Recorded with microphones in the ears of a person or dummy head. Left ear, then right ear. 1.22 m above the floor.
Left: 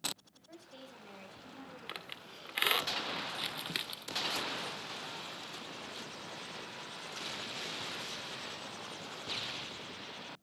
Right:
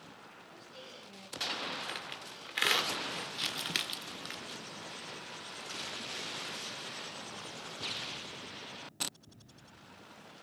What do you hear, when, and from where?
0.4 s a woman speaking: 35° left (ahead or behind), 6 m; by 2.9 s 45° left (ahead or behind), 7.5 m
1.9 s a squeak: 10° left (ahead or behind), 1.5 m
3.3 s crumpling: centre (ahead or behind), 0.7 m